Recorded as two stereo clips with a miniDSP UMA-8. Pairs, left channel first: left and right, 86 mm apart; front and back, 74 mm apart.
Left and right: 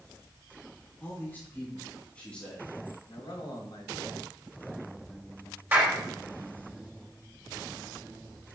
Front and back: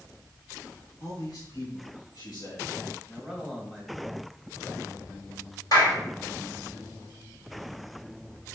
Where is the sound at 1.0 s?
30° left, 2.5 m; by 2.7 s 10° left, 3 m.